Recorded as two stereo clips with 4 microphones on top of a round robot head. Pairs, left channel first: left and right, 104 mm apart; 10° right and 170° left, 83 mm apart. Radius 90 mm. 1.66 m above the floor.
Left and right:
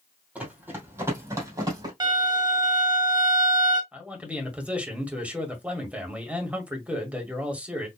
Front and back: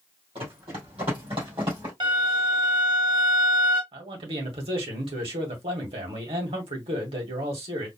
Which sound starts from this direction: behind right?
A violin, at 2.0 s.